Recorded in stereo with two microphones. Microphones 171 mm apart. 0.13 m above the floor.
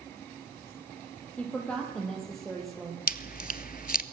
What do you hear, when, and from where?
1.4 s a woman speaking: 10° left (ahead or behind), 4.5 m; by 3.0 s 5° right (ahead or behind), 4.5 m
3.1 s chewing: 60° left (ahead or behind), 0.7 m